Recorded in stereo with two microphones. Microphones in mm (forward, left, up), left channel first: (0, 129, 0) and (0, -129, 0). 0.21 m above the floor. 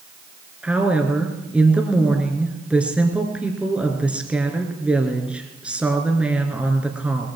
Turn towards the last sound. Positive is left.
turn(degrees=-5)  # may be behind; listen again after turning